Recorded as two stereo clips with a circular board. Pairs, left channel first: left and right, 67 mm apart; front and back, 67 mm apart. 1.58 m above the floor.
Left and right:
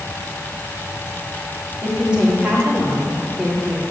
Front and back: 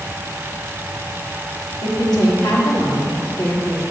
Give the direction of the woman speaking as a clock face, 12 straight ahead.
1 o'clock.